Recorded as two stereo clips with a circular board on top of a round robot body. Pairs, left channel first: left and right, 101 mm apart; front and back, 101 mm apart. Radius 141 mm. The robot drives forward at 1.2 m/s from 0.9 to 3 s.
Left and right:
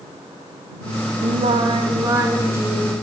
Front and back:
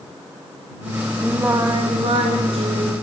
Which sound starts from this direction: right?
Singing, at 1.2 s.